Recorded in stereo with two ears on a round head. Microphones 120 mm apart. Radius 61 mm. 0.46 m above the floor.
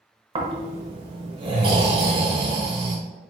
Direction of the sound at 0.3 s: 40° right (ahead or behind).